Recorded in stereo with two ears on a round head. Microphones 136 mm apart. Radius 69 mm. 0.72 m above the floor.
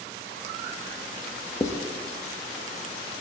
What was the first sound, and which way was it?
Writing, 20° left (ahead or behind).